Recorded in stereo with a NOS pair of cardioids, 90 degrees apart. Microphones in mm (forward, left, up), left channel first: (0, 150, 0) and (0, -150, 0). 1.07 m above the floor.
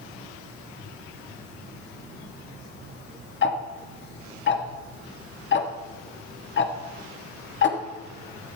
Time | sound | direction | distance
3.4 | ticking | 40° left | 1.5 m